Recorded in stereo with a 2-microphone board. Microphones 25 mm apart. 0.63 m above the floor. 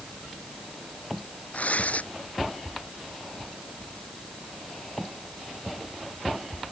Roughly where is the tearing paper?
Left.